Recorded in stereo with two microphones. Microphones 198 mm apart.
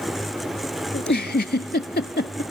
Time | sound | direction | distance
0.9 | a giggle | 60° left (ahead or behind) | 0.6 m